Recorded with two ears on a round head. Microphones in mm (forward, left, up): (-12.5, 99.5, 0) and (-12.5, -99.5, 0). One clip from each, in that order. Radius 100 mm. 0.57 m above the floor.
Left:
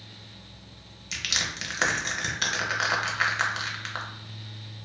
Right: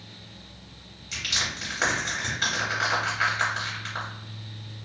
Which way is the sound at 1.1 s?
30° left (ahead or behind).